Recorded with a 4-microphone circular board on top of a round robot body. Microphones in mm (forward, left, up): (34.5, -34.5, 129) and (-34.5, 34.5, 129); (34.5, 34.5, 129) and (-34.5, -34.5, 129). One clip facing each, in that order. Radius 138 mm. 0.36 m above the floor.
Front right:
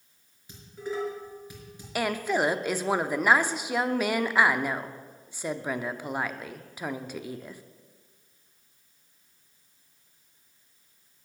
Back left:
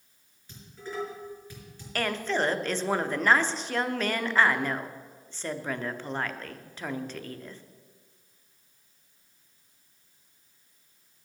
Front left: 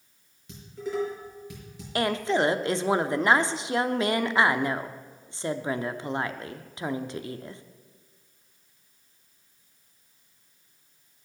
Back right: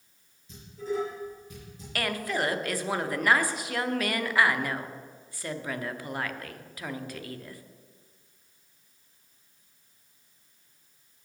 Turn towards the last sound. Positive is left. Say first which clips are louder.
# front right 2 dB, front left 6 dB
turn(degrees=20)